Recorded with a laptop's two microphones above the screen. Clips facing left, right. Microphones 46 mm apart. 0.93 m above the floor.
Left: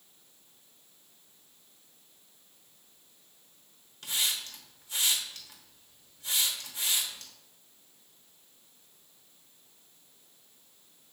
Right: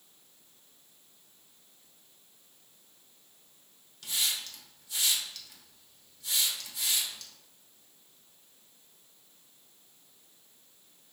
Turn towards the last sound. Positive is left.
turn(degrees=35)  # may be behind; listen again after turning